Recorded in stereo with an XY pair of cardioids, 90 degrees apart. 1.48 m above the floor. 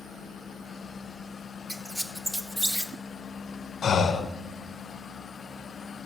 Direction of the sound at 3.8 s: 60° left.